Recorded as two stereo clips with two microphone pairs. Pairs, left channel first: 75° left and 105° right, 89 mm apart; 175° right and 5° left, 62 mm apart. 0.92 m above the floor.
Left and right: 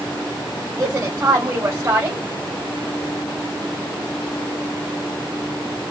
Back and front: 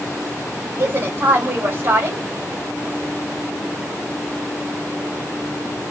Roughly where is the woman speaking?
Ahead right.